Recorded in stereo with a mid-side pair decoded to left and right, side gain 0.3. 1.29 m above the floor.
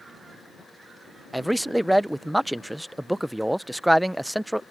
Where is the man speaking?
15° right.